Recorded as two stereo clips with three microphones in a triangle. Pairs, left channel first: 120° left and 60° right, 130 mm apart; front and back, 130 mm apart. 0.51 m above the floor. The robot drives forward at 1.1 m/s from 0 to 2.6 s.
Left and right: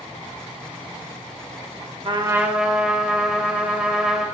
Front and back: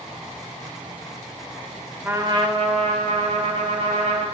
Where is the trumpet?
105° right, 0.5 m; by 4.2 s 145° right, 0.9 m.